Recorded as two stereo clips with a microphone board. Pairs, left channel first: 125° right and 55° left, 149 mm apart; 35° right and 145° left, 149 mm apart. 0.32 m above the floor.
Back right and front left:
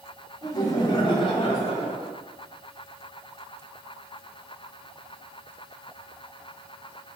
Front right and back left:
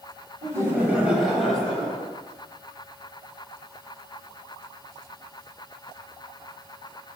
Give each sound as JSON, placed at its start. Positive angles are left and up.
{"t": 0.4, "sound": "laughter", "azimuth_deg": -170, "distance_m": 1.1}